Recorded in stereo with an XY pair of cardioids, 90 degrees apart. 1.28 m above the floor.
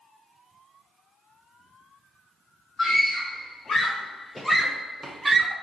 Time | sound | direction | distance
2.8 | a scream | 65° left | 1.0 m